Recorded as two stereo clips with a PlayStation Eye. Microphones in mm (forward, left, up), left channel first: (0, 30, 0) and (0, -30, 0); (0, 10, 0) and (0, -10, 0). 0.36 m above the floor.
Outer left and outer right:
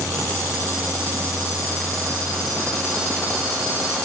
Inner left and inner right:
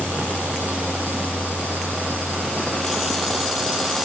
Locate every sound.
Only background noise.